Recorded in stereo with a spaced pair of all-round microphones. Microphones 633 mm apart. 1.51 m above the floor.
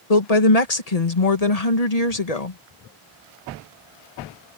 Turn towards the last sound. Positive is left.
turn(degrees=70)  # may be behind; listen again after turning